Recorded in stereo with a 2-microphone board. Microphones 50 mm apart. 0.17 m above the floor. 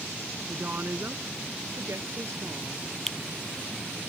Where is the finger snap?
10° left (ahead or behind).